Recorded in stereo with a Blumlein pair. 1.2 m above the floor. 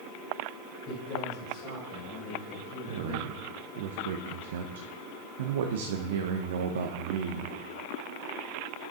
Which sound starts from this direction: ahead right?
A man speaking, at 2.9 s.